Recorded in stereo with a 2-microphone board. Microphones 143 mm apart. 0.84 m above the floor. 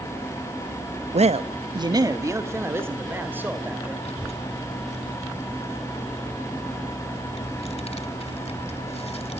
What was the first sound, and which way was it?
A man speaking, 50° right (ahead or behind).